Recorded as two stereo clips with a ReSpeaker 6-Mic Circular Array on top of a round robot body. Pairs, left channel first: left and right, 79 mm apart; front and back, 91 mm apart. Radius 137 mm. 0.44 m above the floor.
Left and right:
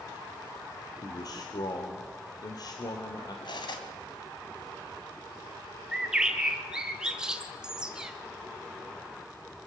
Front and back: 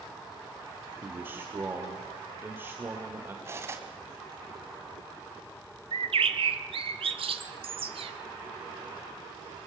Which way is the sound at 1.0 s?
115° left.